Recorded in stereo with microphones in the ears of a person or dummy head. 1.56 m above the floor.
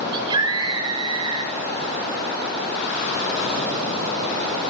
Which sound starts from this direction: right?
A scream, at 0.1 s.